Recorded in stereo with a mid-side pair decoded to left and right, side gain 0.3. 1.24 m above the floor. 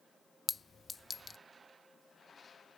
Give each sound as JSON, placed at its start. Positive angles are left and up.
{"t": 0.5, "sound": "a clink", "azimuth_deg": 40}